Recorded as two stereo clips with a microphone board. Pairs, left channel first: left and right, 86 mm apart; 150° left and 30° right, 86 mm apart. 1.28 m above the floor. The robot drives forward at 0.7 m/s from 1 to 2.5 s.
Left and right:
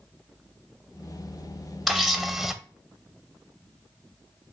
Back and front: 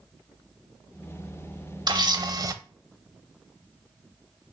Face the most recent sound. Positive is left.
turn(degrees=-5)